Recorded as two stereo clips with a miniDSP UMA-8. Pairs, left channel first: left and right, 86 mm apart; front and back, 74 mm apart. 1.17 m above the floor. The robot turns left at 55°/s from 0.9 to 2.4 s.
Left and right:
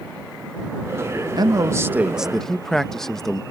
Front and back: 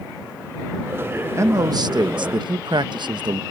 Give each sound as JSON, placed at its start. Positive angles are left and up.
{"t": 1.4, "sound": "a man speaking", "azimuth_deg": -130}